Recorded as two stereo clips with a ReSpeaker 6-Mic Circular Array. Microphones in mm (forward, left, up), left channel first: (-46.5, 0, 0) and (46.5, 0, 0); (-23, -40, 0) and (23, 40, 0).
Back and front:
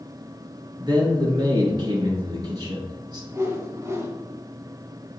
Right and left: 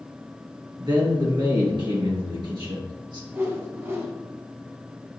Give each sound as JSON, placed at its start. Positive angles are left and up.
{"t": 0.8, "sound": "a man speaking", "azimuth_deg": 35, "distance_m": 2.5}
{"t": 3.3, "sound": "a whoosh", "azimuth_deg": 25, "distance_m": 1.2}